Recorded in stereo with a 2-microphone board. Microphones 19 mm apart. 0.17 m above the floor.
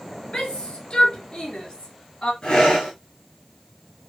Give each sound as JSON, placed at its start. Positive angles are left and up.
{"t": 0.3, "sound": "a shout", "side_deg": 60, "distance_m": 3.5}
{"t": 2.4, "sound": "breathing", "side_deg": 55, "distance_m": 7.0}